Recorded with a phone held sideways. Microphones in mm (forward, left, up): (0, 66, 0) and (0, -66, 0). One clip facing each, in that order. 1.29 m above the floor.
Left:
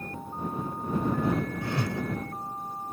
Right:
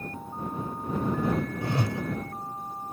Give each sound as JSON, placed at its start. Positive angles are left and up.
{"t": 1.6, "sound": "a whoosh", "side_deg": -25}